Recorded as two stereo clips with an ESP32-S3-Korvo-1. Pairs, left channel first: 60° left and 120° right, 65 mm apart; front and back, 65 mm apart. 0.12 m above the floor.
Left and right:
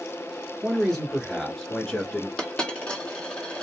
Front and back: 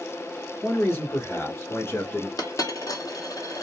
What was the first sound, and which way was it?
A man speaking, 20° right.